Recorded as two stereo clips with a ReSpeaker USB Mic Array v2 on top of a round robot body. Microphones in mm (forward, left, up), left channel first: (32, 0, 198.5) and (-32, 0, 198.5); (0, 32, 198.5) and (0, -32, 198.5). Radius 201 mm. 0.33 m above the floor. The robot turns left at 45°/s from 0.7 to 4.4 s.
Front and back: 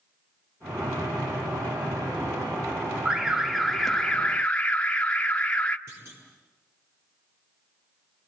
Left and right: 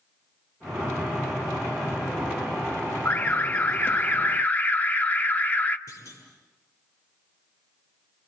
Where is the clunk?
130° left, 8 m.